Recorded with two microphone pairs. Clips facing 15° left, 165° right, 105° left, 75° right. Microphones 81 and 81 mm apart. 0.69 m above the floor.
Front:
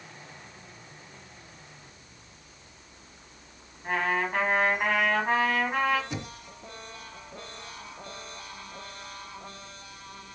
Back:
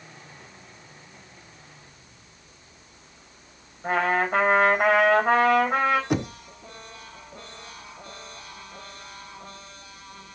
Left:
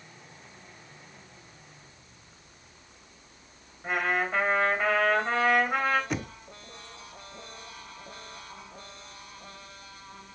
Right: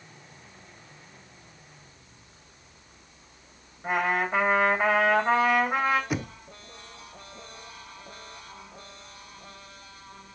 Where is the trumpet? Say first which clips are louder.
Back 5 dB, right 2 dB; 155° right, 3.5 m.